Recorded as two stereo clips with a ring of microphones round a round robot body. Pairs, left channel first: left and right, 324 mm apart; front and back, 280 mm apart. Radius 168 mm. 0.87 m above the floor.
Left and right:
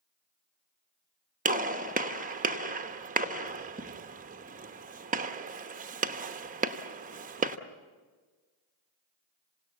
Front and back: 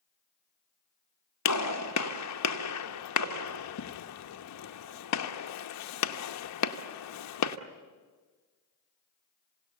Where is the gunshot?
25° right, 1.0 m.